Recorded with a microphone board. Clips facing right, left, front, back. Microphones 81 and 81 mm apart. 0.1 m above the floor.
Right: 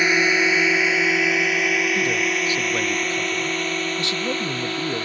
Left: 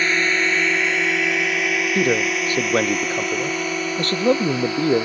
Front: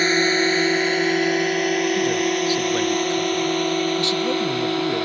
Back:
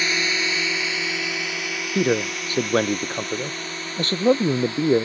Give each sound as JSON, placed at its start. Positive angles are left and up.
{"t": 0.0, "sound": "a drone", "azimuth_deg": -20}
{"t": 1.9, "sound": "a man speaking", "azimuth_deg": 135}